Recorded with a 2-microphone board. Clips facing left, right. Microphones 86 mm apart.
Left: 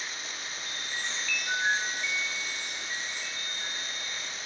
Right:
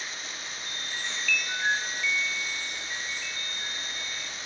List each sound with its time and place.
0.7 s a chime: 25° left (ahead or behind), 5 m